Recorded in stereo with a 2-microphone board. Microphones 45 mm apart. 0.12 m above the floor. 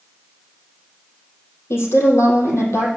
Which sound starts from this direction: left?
A woman speaking, at 1.7 s.